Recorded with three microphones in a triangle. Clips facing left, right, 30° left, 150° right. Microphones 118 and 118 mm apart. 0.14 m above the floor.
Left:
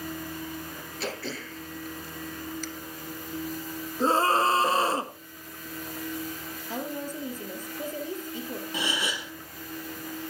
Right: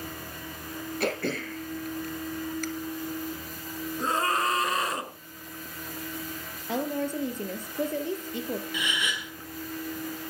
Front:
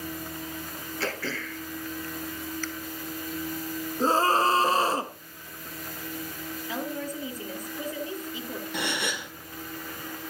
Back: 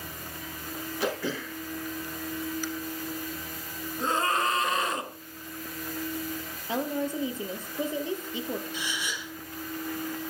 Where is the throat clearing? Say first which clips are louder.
Right 5 dB, back 2 dB; 80° right, 1.8 m.